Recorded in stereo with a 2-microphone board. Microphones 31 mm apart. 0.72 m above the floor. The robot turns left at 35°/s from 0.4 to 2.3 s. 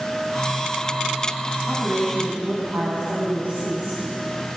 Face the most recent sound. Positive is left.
turn(degrees=-60)  # may be behind; listen again after turning